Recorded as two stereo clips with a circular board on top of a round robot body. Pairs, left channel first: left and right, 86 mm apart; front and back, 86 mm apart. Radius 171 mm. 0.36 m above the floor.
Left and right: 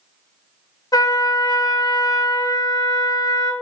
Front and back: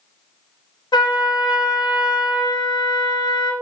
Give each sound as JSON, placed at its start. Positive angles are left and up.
{"t": 0.9, "sound": "a trumpet", "azimuth_deg": 40, "distance_m": 0.9}